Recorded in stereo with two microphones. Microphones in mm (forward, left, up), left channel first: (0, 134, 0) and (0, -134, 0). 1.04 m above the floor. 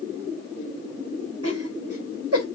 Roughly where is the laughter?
Right.